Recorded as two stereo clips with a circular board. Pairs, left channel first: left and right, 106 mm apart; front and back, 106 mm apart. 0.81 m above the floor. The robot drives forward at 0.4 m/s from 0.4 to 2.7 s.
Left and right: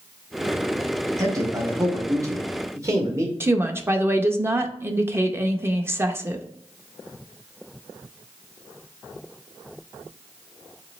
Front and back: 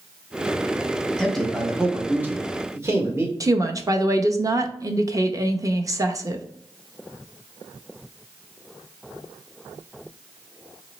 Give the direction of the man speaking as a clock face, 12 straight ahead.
3 o'clock.